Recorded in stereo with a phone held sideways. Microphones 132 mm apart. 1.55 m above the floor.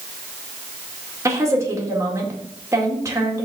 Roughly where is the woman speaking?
Right.